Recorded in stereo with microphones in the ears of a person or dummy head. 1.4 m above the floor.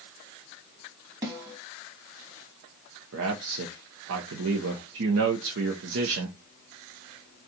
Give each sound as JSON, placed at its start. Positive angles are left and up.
{"t": 1.2, "sound": "a snare drum", "side_deg": -10, "distance_m": 2.0}
{"t": 3.1, "sound": "a man speaking", "side_deg": -70, "distance_m": 0.7}